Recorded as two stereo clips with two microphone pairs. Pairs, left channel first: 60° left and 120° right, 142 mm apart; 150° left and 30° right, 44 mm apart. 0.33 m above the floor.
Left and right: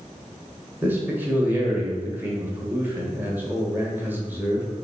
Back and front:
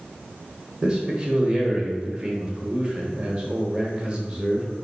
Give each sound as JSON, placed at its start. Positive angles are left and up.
{"t": 0.8, "sound": "a man speaking", "azimuth_deg": -65, "distance_m": 1.0}